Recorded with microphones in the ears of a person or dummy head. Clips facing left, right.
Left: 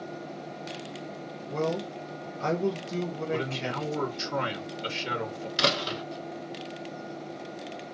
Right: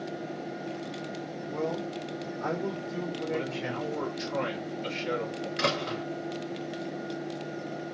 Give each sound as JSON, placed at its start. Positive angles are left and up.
{"t": 1.5, "sound": "a man speaking", "side_deg": 45, "distance_m": 1.3}
{"t": 3.3, "sound": "a man speaking", "side_deg": 65, "distance_m": 1.8}
{"t": 5.6, "sound": "a door slam", "side_deg": 50, "distance_m": 1.3}